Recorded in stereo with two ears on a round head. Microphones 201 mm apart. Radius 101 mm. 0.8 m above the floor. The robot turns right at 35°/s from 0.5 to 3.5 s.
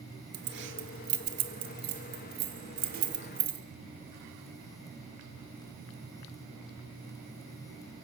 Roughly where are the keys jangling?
Right.